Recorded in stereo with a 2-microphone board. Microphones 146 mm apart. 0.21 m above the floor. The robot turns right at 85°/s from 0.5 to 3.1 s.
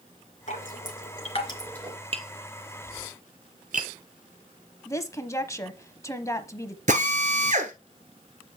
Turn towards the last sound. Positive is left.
turn(degrees=-55)  # may be behind; listen again after turning